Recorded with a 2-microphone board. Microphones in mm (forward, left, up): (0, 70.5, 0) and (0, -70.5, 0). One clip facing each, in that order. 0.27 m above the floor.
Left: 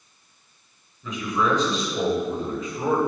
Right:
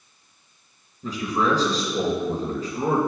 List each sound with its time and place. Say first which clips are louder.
1.0 s a man speaking: right 1 dB; 35° right (ahead or behind), 2.5 m